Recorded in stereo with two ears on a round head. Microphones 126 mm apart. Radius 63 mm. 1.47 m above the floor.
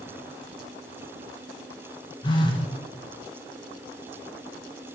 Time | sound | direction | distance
2.2 | a phone buzzing | 30° left (ahead or behind) | 1.1 m